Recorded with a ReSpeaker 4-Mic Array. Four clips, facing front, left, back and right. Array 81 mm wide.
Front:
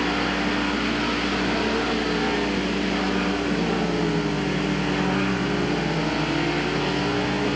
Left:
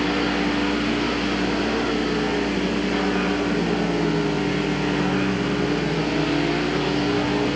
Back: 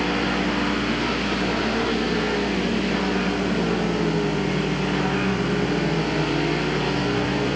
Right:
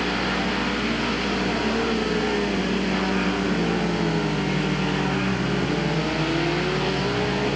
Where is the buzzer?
I don't hear a buzzer.